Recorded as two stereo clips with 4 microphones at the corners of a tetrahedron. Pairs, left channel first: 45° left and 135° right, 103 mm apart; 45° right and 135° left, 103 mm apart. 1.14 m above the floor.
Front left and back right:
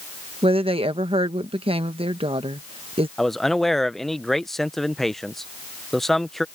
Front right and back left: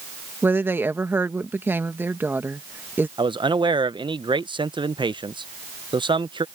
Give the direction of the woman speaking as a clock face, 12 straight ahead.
5 o'clock.